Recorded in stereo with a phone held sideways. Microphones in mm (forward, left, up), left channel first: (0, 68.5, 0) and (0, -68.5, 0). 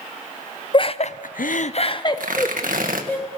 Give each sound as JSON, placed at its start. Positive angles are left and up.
{"t": 0.7, "sound": "laughter", "side_deg": 35, "distance_m": 0.8}
{"t": 2.2, "sound": "tearing paper", "side_deg": -80, "distance_m": 1.6}